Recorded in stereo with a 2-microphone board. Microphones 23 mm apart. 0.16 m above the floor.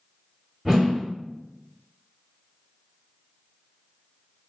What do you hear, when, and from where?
0.7 s a whoosh: 15° right (ahead or behind), 1.3 m